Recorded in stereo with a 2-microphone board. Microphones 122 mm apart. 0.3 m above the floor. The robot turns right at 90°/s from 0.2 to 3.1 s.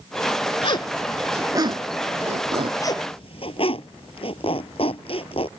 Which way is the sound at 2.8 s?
25° left (ahead or behind).